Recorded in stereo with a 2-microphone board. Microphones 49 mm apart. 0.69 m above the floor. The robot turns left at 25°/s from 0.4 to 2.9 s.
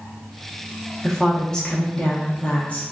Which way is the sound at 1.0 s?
175° left.